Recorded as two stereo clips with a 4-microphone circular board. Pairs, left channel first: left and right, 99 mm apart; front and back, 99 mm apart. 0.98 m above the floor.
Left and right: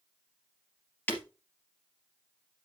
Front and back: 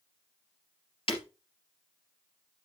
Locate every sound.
1.1 s breaking glass: 20° left, 3 m